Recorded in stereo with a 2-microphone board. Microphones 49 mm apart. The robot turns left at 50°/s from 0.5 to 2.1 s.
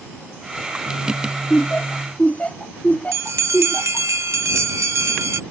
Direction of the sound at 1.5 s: 25° left (ahead or behind).